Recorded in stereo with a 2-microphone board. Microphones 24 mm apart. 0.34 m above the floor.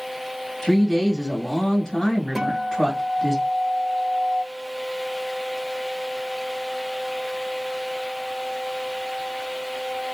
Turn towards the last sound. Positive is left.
turn(degrees=-15)  # may be behind; listen again after turning